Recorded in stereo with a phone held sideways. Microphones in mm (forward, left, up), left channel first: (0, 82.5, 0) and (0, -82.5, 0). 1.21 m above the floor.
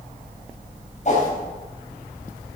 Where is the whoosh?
45° left (ahead or behind), 3.5 m.